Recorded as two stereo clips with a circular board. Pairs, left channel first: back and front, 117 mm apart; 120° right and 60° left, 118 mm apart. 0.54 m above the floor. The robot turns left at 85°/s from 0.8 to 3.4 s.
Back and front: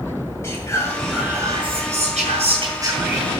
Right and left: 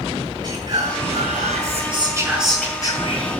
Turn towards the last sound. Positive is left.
turn(degrees=-110)